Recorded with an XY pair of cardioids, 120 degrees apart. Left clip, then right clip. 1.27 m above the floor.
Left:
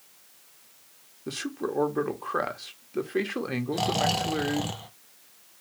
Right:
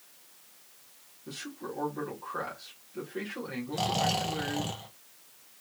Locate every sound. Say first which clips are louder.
1.3 s a man speaking: left 8 dB; 60° left, 1.0 m
3.7 s snoring: left 2 dB; 15° left, 0.6 m